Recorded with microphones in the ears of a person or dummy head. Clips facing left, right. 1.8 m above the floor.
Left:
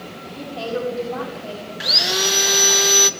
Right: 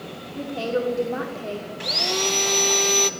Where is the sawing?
10° left (ahead or behind), 0.6 m.